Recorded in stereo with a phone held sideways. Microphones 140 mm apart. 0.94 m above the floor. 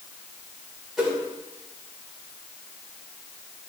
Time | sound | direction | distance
1.0 | a whoosh | 5° right (ahead or behind) | 3.5 m